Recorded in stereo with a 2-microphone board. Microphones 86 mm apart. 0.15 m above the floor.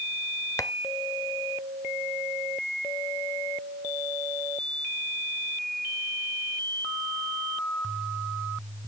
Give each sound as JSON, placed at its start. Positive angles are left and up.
{"t": 0.6, "sound": "tapping", "side_deg": 35, "distance_m": 0.8}